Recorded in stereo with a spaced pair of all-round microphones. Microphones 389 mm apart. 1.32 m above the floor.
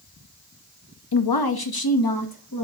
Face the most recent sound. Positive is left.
turn(degrees=55)  # may be behind; listen again after turning